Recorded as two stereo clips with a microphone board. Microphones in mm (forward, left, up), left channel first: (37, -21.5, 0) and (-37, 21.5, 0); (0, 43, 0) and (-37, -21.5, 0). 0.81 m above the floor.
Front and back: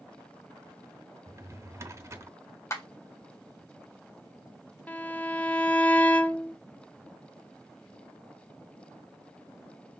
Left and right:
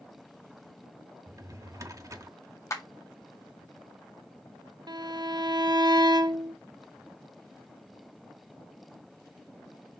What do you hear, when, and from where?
1.3 s a drawer: 160° right, 0.8 m
2.7 s a clap: 20° left, 1.5 m
4.9 s a violin: 105° right, 0.6 m